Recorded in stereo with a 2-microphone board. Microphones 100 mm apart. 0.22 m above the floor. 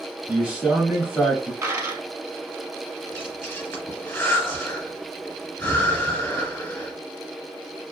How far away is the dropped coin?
About 0.7 m.